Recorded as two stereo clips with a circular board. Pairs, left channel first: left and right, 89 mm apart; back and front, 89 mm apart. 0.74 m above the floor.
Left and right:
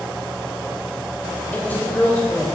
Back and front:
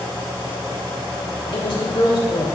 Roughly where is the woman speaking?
Behind.